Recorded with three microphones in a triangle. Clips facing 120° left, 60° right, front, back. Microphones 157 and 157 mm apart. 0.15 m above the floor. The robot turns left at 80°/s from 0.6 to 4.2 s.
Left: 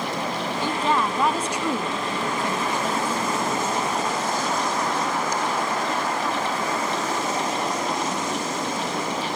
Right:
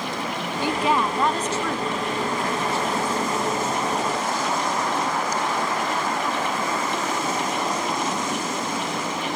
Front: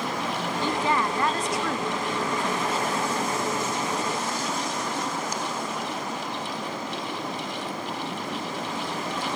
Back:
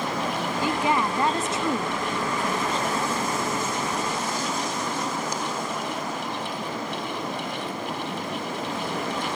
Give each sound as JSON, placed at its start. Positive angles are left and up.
{"t": 0.6, "sound": "a woman speaking", "azimuth_deg": -110, "distance_m": 1.3}